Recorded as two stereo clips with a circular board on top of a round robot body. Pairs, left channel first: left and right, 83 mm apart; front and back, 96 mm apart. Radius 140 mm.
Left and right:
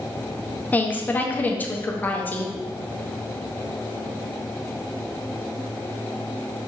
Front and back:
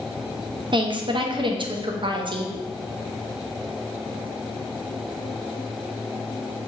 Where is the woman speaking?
155° left, 0.8 m.